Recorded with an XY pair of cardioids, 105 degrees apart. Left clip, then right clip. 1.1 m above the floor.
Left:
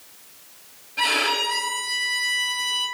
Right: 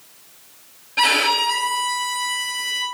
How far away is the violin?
About 0.7 m.